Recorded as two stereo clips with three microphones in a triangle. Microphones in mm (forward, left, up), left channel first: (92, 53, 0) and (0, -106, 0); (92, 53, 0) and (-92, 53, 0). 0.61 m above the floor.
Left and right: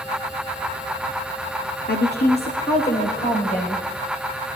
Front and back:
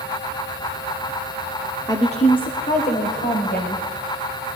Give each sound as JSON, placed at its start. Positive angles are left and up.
{"t": 1.9, "sound": "a woman speaking", "azimuth_deg": 70, "distance_m": 1.3}